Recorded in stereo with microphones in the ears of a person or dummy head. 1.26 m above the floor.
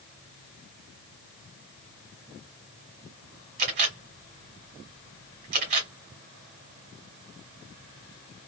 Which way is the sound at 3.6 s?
50° right (ahead or behind).